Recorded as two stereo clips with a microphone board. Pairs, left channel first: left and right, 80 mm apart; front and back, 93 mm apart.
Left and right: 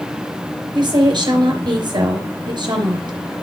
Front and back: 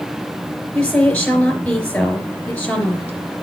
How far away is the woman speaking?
About 3.5 m.